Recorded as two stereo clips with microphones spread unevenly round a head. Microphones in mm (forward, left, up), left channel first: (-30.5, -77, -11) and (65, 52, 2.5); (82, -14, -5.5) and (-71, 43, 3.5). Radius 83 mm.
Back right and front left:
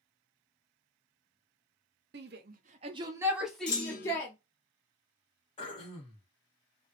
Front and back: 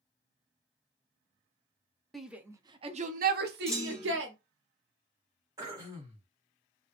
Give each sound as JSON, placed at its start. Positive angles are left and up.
{"t": 2.1, "sound": "a shout", "azimuth_deg": 65, "distance_m": 0.8}
{"t": 3.7, "sound": "a clunk", "azimuth_deg": -110, "distance_m": 1.2}
{"t": 5.6, "sound": "throat clearing", "azimuth_deg": -155, "distance_m": 1.3}